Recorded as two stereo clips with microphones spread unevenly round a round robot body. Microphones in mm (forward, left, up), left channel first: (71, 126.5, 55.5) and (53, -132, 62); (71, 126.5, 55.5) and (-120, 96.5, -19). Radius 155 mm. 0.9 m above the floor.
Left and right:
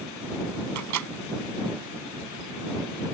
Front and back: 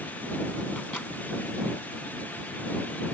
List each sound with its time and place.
0.8 s a microwave: 75° right